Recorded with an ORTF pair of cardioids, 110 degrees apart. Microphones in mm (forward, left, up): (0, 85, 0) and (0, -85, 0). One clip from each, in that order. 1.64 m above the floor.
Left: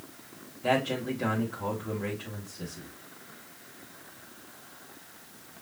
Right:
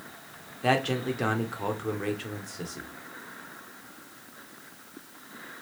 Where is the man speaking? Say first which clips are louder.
Right 2 dB; 65° right, 1.7 m.